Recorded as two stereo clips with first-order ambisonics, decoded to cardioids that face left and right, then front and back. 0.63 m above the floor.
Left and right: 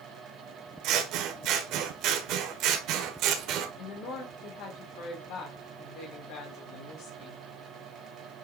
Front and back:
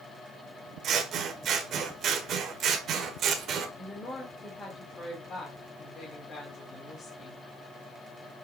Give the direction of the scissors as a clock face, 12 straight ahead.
4 o'clock.